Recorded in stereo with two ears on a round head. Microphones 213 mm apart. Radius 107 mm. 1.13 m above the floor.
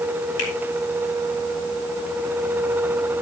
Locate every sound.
0.4 s a finger snap: 55° left (ahead or behind), 4 m